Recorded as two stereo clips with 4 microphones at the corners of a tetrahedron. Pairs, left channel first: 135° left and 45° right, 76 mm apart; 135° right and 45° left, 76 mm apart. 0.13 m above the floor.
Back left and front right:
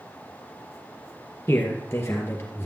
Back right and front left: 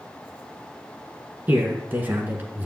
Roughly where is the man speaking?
Left.